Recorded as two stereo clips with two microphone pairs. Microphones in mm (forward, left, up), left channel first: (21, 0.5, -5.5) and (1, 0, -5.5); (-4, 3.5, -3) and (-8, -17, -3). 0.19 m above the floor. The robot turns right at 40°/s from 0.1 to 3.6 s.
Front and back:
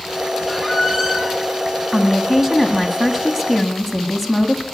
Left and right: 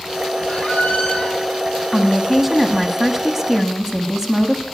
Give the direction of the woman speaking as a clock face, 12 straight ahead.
6 o'clock.